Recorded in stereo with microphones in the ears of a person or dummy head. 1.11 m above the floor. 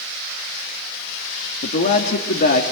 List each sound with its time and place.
1.6 s a man speaking: 45° left (ahead or behind), 2 m